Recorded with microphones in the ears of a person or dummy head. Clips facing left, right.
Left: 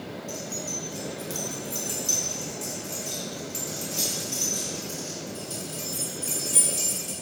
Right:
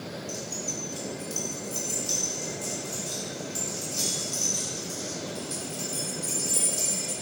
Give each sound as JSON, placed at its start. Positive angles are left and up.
{"t": 0.3, "sound": "keys jangling", "side_deg": 20, "distance_m": 1.0}